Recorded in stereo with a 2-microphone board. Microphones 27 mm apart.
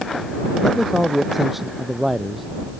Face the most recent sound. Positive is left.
turn(degrees=-5)  # may be behind; listen again after turning